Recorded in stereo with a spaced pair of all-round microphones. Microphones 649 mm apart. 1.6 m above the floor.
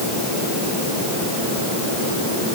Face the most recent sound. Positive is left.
No sound to turn to.